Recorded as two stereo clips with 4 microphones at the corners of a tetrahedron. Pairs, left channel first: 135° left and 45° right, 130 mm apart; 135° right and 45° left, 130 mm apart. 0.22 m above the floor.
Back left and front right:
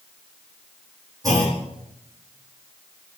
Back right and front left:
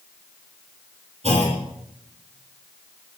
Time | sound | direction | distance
1.2 | a clunk | 15° left | 7.5 m